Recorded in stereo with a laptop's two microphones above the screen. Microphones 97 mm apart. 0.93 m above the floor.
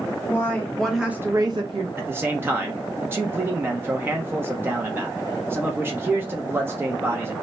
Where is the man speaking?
25° right (ahead or behind), 0.6 m.